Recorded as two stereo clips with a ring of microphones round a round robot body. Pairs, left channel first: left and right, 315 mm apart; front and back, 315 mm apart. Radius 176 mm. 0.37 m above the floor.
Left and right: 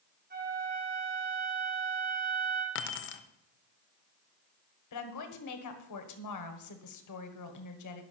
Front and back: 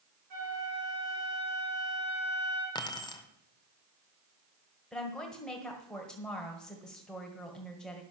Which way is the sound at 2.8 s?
70° left.